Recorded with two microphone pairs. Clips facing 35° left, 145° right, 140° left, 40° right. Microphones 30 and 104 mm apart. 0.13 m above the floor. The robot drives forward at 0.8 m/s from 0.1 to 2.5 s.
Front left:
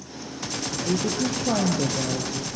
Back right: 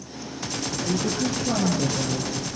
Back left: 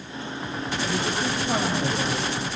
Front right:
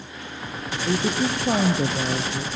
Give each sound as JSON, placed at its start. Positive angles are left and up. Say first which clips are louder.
{"t": 0.8, "sound": "a woman speaking", "louder": "front left 1 dB, front right 6 dB", "azimuth_deg": -10, "distance_m": 3.5}